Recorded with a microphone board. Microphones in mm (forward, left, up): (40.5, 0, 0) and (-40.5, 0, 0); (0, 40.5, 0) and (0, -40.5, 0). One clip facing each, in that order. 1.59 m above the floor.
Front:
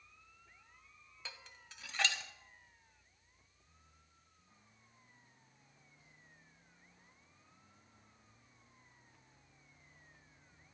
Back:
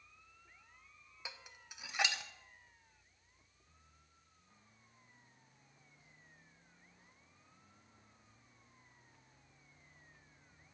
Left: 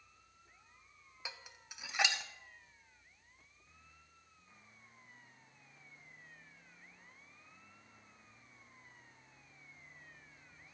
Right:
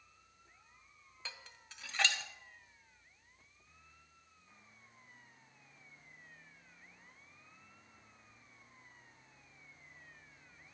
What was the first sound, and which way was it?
Dishes clattering, 135° left.